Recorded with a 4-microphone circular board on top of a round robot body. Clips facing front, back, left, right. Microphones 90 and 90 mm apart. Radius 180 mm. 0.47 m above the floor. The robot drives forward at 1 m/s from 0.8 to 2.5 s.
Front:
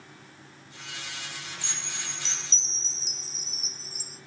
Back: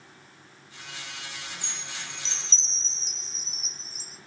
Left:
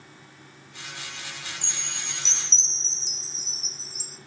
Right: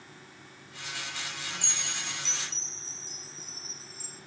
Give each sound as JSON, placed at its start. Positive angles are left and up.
{"t": 1.6, "sound": "a chime", "azimuth_deg": 50, "distance_m": 1.8}